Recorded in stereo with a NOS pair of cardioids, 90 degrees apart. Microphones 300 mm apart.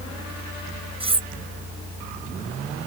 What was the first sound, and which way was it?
Cutlery clinking, 20° right.